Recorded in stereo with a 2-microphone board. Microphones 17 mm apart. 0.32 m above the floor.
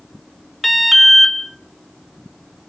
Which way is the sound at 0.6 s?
10° left (ahead or behind).